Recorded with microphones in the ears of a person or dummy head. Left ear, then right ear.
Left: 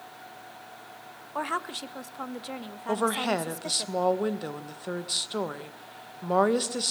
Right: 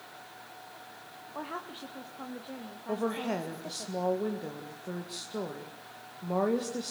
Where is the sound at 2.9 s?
55° left (ahead or behind), 2.0 m.